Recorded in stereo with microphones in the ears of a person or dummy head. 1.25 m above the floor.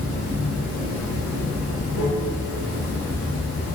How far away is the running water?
About 2.5 m.